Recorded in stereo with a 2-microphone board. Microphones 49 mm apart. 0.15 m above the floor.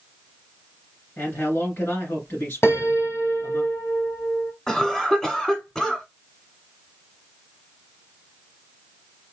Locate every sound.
1.2 s a man speaking: 50° left (ahead or behind), 2 m
2.6 s a piano: 65° left (ahead or behind), 0.8 m
4.7 s a cough: 10° left (ahead or behind), 1.1 m